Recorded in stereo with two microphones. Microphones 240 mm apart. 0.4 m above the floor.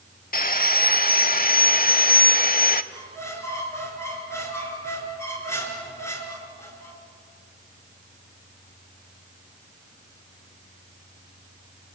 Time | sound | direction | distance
0.3 | sawing | 40° left (ahead or behind) | 0.8 m
2.9 | a squeak | 10° left (ahead or behind) | 3.5 m